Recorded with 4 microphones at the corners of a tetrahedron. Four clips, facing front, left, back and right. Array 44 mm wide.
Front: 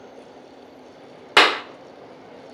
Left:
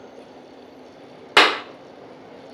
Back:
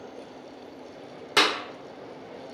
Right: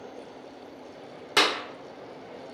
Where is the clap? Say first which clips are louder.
Left 8 dB, front 7 dB; 45° left, 0.9 m.